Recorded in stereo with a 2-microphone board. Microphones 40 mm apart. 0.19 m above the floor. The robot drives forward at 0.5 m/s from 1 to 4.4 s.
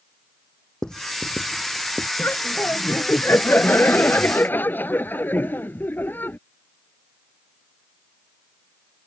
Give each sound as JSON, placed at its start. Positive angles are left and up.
{"t": 0.8, "sound": "writing", "side_deg": 20}
{"t": 2.2, "sound": "laughter", "side_deg": 65}